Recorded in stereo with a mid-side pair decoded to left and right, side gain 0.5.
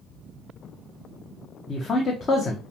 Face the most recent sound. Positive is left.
turn(degrees=40)